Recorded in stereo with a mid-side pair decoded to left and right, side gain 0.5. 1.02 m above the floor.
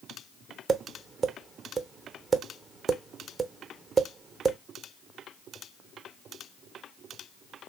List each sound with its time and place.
0.7 s tapping: 30° right, 0.8 m